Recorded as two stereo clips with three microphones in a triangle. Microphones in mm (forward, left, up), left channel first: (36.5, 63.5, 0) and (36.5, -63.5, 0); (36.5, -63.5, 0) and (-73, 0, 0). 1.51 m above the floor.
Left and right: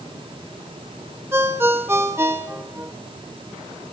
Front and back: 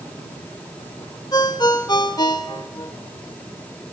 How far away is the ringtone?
About 0.9 m.